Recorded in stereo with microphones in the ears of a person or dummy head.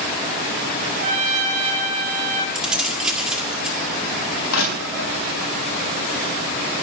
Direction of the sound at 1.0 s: 45° right (ahead or behind).